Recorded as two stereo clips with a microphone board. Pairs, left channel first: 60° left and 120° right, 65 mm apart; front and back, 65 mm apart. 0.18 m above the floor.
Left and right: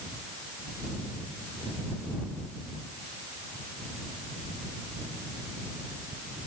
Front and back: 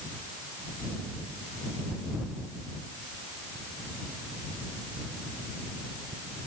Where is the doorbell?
No doorbell in this recording.